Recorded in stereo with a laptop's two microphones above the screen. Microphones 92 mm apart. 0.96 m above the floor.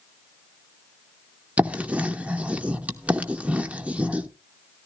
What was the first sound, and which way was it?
Writing, 15° right (ahead or behind).